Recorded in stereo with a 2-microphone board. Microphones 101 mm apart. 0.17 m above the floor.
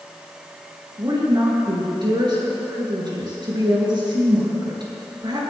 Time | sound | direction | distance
1.0 | a woman speaking | 50° right (ahead or behind) | 3 m